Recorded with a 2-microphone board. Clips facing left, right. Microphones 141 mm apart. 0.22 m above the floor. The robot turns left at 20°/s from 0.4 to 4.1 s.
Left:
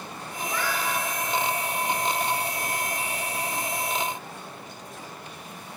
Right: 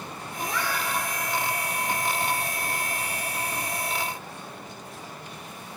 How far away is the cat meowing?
About 9 m.